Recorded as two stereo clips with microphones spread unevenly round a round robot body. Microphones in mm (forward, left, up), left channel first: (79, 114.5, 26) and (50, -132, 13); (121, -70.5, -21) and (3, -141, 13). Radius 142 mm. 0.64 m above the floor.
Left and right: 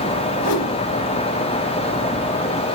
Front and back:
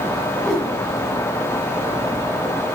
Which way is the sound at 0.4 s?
125° left.